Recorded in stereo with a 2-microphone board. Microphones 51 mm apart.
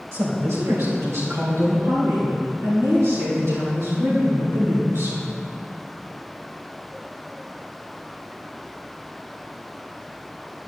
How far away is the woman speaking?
About 3 m.